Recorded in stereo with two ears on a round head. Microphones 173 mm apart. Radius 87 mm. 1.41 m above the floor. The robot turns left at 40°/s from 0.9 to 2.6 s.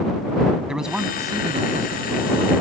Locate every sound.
0.7 s a man speaking: 5° right; by 2.5 s 65° right